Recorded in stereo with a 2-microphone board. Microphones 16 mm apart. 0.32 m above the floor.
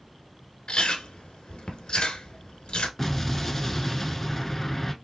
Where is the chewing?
80° left, 1.0 m.